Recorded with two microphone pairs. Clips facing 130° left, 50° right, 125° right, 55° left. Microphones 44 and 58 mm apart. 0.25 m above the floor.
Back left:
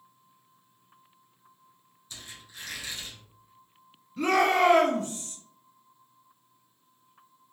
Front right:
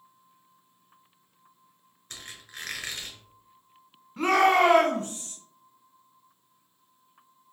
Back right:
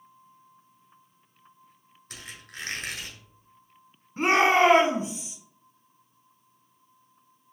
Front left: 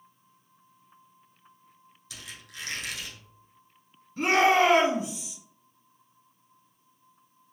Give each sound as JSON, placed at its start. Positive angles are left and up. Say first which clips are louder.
{"t": 2.1, "sound": "a squeak", "louder": "front right 3 dB, back right 2 dB", "azimuth_deg": -80, "distance_m": 1.1}
{"t": 4.2, "sound": "a shout", "louder": "front right 2 dB, back right 1 dB", "azimuth_deg": -80, "distance_m": 1.7}